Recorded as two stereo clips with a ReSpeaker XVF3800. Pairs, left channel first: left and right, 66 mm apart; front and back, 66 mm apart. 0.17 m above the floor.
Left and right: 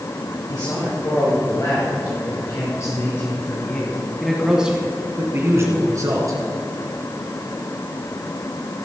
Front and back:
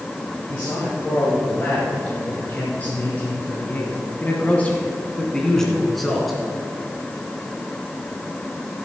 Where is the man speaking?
65° left, 4.5 m; by 6.4 s 90° right, 2.5 m.